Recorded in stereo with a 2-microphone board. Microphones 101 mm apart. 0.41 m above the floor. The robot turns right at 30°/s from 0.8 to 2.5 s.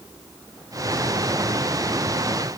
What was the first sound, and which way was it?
Only background noise.